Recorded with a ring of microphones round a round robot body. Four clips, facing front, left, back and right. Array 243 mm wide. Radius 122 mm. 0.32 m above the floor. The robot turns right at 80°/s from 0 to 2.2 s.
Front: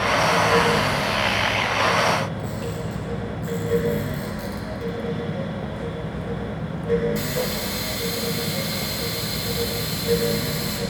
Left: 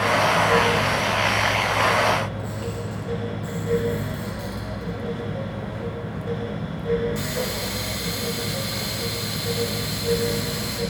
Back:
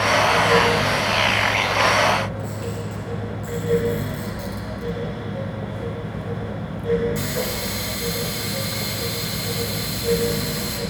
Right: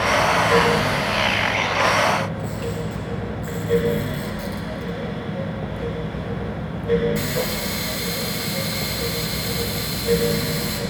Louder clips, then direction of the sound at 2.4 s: Right 3 dB, even; 85° right.